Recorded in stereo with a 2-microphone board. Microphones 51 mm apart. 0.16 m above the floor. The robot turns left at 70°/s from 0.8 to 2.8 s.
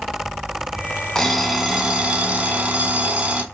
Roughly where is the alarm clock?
Centre.